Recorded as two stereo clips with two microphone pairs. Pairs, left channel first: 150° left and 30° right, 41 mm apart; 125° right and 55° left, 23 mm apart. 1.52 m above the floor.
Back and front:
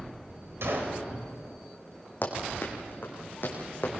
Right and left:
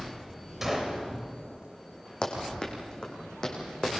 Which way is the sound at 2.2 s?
170° right.